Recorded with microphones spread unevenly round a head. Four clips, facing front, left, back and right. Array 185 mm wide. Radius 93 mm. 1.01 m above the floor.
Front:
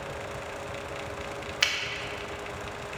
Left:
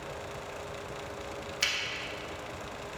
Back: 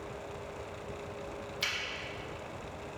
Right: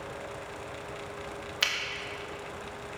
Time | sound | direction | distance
1.6 | a finger snap | 30° right | 1.0 m